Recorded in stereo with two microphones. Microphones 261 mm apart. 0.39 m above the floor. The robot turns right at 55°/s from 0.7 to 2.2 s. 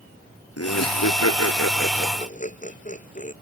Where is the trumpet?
I don't hear a trumpet.